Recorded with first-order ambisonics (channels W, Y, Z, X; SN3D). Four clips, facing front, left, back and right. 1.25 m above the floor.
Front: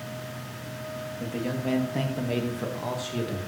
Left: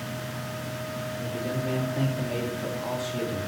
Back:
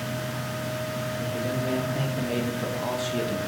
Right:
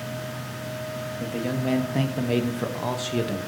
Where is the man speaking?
70° right, 2.5 m; by 3.4 s 105° right, 1.6 m.